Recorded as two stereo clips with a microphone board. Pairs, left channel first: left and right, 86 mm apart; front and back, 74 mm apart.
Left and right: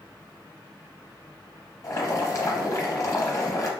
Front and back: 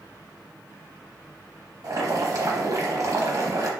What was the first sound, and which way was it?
Boiling, 140° left.